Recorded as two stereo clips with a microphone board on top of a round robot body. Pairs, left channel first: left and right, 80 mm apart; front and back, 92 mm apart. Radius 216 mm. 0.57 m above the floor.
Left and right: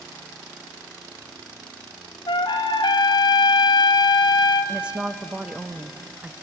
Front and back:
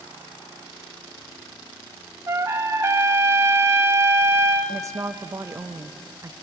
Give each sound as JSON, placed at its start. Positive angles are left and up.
{"t": 2.3, "sound": "a trumpet", "azimuth_deg": 115, "distance_m": 0.8}
{"t": 4.7, "sound": "a woman speaking", "azimuth_deg": -160, "distance_m": 0.9}